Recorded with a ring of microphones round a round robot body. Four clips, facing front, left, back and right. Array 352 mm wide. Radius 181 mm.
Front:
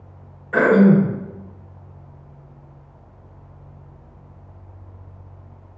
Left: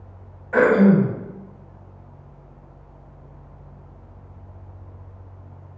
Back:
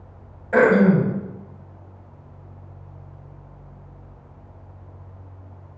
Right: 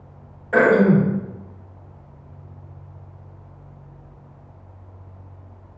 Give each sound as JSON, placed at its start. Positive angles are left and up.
{"t": 0.5, "sound": "throat clearing", "azimuth_deg": -145, "distance_m": 0.8}